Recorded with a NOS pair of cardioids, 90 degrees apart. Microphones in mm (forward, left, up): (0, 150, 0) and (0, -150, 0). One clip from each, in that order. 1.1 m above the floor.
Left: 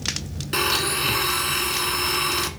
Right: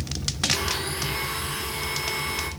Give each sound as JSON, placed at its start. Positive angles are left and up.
{"t": 0.5, "sound": "a blender", "azimuth_deg": 65, "distance_m": 1.7}